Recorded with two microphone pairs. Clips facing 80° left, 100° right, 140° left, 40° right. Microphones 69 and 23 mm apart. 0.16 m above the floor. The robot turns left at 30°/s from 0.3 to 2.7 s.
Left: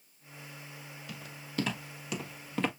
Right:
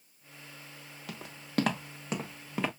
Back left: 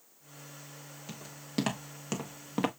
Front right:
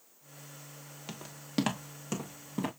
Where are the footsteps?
95° right, 1.7 m; by 2.7 s 175° left, 1.1 m.